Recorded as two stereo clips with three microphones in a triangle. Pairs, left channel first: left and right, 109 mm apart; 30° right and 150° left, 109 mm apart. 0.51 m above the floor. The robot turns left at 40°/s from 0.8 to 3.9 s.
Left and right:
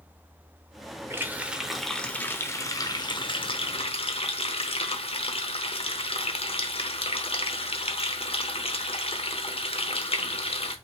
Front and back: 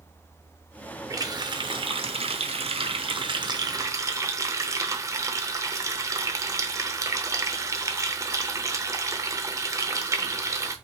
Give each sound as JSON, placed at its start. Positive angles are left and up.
{"t": 1.1, "sound": "a running tap", "azimuth_deg": -155, "distance_m": 0.9}